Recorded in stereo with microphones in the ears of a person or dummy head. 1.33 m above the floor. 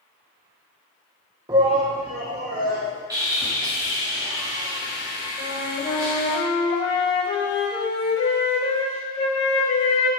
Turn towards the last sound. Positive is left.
turn(degrees=25)  # may be behind; listen again after turning